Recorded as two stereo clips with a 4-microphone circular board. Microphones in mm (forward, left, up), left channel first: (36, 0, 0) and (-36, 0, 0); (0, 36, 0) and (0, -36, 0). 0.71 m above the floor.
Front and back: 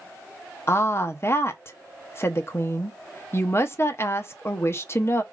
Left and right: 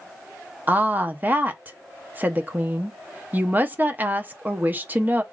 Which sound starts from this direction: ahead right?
A woman speaking, at 0.7 s.